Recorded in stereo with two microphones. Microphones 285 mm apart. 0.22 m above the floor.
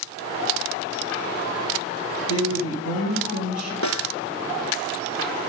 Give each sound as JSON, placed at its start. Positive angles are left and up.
{"t": 2.3, "sound": "a woman speaking", "side_deg": 50, "distance_m": 2.0}
{"t": 3.8, "sound": "a snare drum", "side_deg": 70, "distance_m": 0.6}